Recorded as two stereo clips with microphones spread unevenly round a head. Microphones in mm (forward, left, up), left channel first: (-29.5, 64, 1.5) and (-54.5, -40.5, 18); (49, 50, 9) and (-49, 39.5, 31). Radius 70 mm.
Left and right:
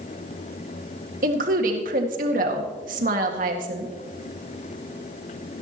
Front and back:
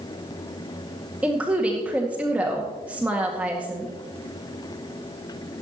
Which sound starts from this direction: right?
A woman speaking, at 1.2 s.